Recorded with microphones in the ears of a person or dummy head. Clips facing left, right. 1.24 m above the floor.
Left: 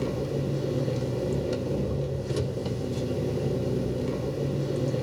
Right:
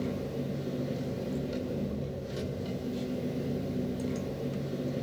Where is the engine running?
75° left (ahead or behind), 3 m.